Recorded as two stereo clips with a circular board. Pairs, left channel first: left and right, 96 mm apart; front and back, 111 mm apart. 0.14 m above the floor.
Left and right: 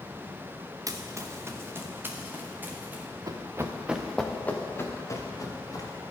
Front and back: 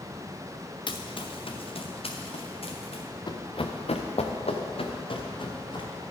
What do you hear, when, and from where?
0.9 s running footsteps: 40° right, 0.8 m; by 3.0 s 15° right, 2 m
3.3 s running footsteps: 45° right, 1.2 m; by 6.0 s 45° left, 2.5 m